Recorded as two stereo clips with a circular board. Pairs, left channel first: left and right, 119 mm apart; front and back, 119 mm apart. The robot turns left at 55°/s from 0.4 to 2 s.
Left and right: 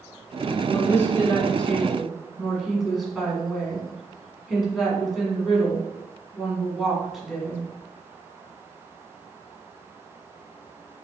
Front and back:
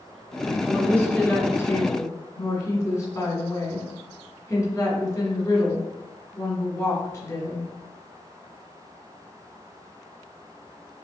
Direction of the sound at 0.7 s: 70° left.